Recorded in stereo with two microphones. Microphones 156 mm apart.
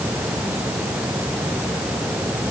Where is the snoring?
I don't hear snoring.